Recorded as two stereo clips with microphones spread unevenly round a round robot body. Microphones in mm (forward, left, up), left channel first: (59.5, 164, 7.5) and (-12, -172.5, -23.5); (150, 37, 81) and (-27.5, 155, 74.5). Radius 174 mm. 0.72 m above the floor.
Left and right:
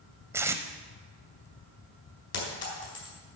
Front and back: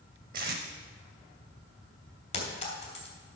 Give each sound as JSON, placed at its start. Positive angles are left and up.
{"t": 0.3, "sound": "tape being pulled", "azimuth_deg": 175, "distance_m": 0.5}
{"t": 2.3, "sound": "a clink", "azimuth_deg": 25, "distance_m": 4.0}